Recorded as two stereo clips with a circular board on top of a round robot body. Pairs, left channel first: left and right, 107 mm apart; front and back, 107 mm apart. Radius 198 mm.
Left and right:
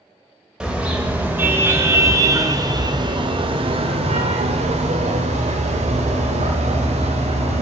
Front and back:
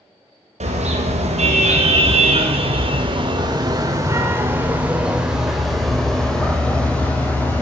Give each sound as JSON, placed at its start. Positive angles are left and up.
{"t": 0.6, "sound": "a car horn", "azimuth_deg": -175, "distance_m": 2.5}